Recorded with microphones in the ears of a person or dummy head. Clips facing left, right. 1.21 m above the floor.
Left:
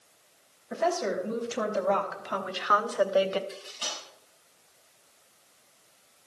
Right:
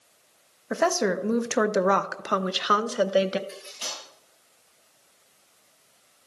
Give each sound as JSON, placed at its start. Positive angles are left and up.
{"t": 0.7, "sound": "a woman speaking", "side_deg": -60, "distance_m": 1.1}
{"t": 3.5, "sound": "cutlery clinking", "side_deg": -15, "distance_m": 4.5}